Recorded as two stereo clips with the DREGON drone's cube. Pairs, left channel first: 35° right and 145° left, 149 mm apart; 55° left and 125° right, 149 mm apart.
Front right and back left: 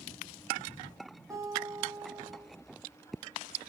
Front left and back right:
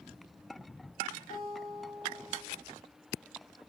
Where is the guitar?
75° left, 4.5 m.